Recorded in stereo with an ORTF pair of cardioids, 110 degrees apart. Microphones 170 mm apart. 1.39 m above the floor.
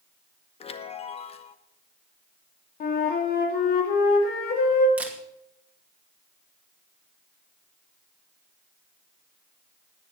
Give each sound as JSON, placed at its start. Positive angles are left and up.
{"t": 0.6, "sound": "a chime", "azimuth_deg": 35, "distance_m": 1.0}
{"t": 2.8, "sound": "a flute", "azimuth_deg": 60, "distance_m": 3.0}
{"t": 5.0, "sound": "a camera shutter", "azimuth_deg": -10, "distance_m": 2.5}